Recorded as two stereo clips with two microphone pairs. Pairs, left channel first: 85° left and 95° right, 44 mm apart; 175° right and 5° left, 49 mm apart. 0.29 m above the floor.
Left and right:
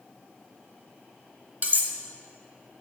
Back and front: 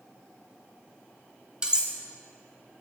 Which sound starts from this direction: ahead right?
Cutlery clinking, at 1.6 s.